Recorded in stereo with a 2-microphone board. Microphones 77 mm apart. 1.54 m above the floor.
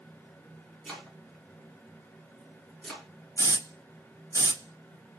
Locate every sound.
0.8 s chopping: 5° left (ahead or behind), 1.4 m
3.4 s a hiss: 45° right (ahead or behind), 1.3 m